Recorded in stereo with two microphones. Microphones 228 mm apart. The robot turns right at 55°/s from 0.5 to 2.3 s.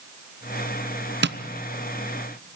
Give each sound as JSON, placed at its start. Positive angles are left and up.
{"t": 1.2, "sound": "tapping", "side_deg": -50, "distance_m": 0.6}